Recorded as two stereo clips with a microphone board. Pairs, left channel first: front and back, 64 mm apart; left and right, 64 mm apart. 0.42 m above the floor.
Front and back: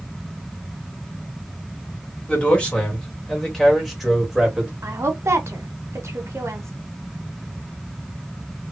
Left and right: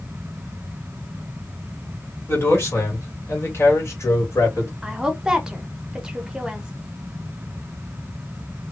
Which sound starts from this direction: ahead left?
A man speaking, at 2.3 s.